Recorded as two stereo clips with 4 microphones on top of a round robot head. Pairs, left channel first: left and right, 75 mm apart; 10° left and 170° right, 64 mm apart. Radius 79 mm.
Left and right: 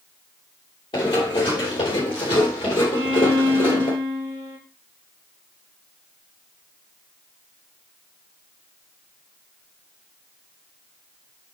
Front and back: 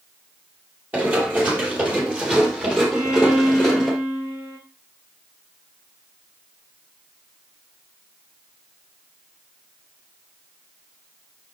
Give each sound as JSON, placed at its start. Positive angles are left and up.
{"t": 0.9, "sound": "running footsteps", "azimuth_deg": 135, "distance_m": 3.5}
{"t": 2.9, "sound": "a violin", "azimuth_deg": -100, "distance_m": 3.5}